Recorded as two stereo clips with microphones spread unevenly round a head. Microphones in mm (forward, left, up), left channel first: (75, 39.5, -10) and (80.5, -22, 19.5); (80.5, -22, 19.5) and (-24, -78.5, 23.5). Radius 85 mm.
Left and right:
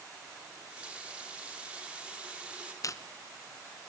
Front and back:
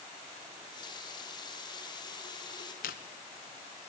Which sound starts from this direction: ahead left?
Chewing, at 2.8 s.